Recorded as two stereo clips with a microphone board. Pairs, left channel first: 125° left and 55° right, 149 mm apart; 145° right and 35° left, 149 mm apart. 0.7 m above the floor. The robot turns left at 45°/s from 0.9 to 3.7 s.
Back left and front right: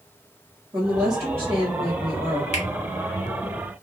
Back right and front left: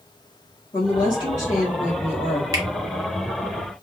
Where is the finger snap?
100° left, 1.6 m; by 2.6 s 95° left, 1.6 m.